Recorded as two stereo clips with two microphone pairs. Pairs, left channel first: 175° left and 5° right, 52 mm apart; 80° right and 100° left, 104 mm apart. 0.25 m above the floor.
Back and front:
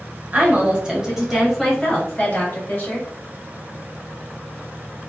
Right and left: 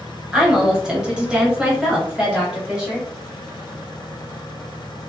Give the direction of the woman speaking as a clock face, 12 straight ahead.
11 o'clock.